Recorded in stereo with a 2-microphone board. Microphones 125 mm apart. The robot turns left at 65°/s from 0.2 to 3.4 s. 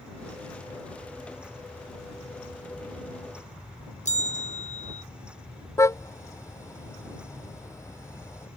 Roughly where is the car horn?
Left.